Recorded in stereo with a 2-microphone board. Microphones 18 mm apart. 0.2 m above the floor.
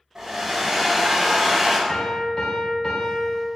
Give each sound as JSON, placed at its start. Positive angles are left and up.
{"t": 0.1, "sound": "a hair dryer", "side_deg": -30, "distance_m": 1.4}
{"t": 1.9, "sound": "a piano", "side_deg": 40, "distance_m": 1.3}